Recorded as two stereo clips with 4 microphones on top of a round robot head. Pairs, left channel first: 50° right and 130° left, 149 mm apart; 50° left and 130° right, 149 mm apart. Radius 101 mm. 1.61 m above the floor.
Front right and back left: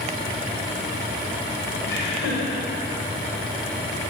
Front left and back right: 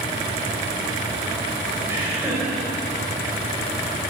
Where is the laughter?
55° right, 6.5 m.